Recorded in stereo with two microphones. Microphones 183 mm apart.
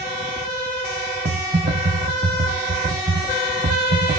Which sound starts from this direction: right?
Typing on a keyboard, at 1.2 s.